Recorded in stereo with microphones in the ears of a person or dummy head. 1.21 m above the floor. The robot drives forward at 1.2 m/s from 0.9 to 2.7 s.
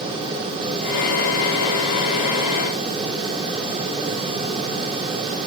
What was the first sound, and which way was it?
Only background noise.